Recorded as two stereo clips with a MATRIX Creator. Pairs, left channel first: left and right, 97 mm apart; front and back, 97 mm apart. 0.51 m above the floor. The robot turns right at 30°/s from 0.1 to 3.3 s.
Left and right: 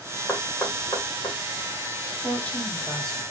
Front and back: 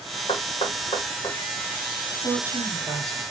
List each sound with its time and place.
0.3 s knocking: 10° left, 1.3 m; by 1.4 s 40° left, 1.3 m
2.2 s a woman speaking: 145° left, 0.9 m; by 3.2 s 175° left, 0.9 m